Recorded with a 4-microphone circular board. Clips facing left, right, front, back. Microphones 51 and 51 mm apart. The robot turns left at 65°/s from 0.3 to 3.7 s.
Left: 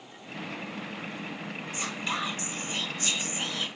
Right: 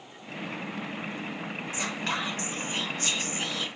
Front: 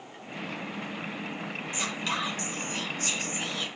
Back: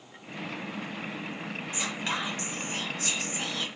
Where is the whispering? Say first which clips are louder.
Right 1 dB, front 1 dB; 100° right, 2 m; by 3.7 s 135° left, 2 m.